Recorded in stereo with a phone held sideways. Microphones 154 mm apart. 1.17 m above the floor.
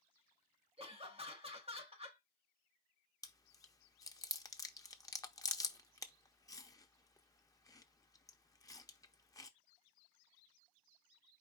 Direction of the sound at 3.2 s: 25° left (ahead or behind).